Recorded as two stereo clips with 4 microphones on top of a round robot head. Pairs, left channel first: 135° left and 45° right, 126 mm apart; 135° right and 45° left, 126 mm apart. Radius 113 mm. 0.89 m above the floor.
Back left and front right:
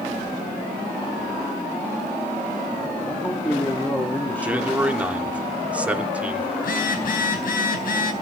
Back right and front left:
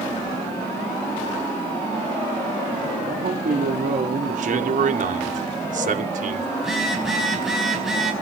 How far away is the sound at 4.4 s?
About 3 m.